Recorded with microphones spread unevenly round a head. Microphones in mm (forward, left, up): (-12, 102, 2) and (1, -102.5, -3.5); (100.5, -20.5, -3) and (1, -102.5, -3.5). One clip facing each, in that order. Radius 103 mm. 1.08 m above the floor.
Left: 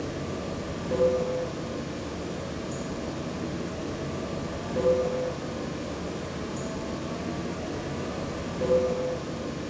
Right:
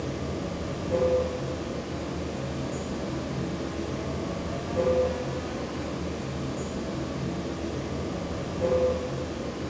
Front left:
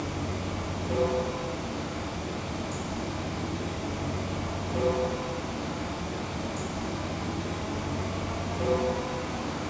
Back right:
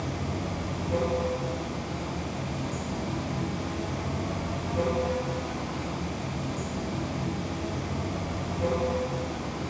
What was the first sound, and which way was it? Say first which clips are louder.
Running water: right 1 dB, even; 70° left.